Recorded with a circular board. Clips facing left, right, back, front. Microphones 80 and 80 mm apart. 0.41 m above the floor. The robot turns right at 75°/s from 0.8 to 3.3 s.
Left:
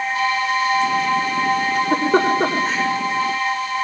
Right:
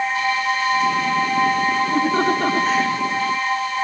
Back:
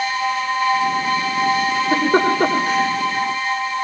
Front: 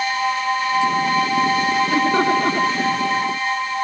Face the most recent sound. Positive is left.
turn(degrees=-130)